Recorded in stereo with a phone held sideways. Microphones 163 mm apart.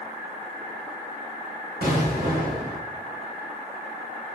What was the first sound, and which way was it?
An explosion, 85° right.